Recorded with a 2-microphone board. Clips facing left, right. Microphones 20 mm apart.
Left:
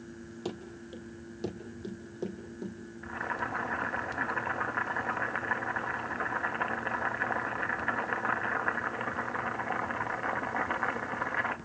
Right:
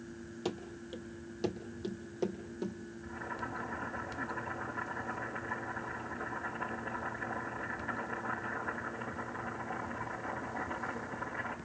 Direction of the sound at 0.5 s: 5° right (ahead or behind).